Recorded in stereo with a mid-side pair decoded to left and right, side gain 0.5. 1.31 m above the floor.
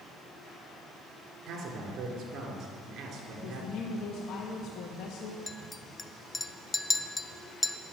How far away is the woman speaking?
About 1.6 m.